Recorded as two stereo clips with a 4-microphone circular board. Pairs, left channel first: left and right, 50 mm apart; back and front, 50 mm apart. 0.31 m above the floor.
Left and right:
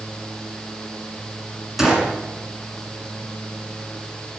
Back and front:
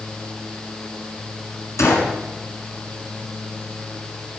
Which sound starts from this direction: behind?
A gunshot, at 1.8 s.